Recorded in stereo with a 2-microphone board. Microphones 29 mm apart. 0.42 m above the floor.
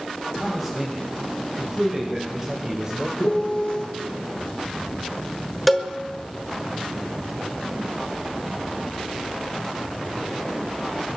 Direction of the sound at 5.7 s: 5° right (ahead or behind).